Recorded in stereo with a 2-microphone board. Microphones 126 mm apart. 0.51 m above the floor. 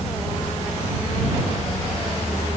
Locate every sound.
Only background noise.